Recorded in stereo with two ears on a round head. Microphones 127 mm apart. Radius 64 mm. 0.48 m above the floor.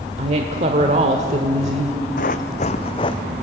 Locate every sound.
0.2 s a woman speaking: 50° right (ahead or behind), 1.4 m
2.2 s running footsteps: 60° left (ahead or behind), 1.2 m; by 3.2 s 30° left (ahead or behind), 1.2 m